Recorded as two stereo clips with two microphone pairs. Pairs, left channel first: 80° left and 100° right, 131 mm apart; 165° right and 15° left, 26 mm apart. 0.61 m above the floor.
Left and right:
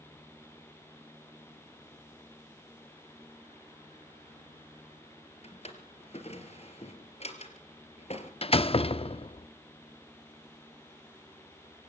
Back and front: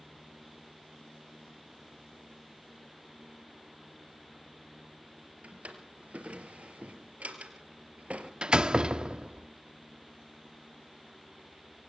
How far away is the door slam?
About 0.6 m.